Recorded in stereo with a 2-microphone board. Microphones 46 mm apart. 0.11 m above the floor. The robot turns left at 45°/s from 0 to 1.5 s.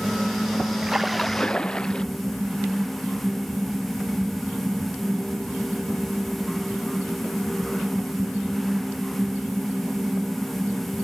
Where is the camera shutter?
I don't hear a camera shutter.